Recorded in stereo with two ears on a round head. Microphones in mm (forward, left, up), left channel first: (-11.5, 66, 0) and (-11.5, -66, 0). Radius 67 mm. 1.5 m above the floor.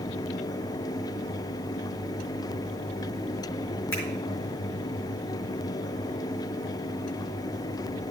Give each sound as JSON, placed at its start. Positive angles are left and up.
{"t": 3.9, "sound": "a finger snap", "side_deg": 20, "distance_m": 2.5}